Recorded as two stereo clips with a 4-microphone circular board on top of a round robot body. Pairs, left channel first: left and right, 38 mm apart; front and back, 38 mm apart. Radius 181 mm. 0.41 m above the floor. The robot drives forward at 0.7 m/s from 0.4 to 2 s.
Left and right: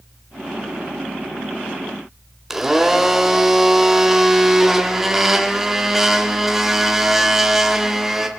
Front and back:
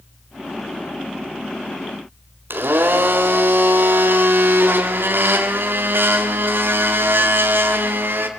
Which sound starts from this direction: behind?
A blender, at 2.5 s.